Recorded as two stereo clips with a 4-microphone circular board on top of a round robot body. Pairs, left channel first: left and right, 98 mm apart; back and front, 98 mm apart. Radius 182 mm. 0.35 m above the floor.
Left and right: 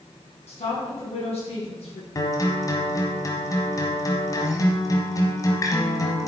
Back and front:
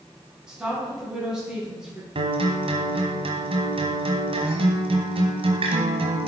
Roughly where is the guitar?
Ahead left.